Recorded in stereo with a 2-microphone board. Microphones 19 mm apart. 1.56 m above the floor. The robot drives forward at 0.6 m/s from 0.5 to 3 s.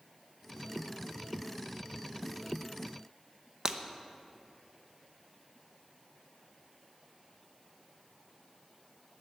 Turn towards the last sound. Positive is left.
turn(degrees=-35)  # may be behind; listen again after turning